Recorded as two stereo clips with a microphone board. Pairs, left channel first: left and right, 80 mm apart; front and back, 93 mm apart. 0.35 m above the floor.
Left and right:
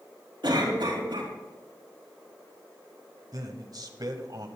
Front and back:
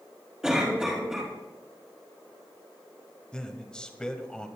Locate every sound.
0.4 s a cough: 95° right, 4.5 m
3.3 s a man speaking: 80° right, 1.6 m